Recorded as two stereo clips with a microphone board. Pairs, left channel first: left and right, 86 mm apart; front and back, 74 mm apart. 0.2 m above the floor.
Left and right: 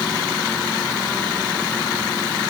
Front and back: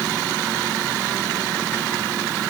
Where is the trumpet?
No trumpet in this recording.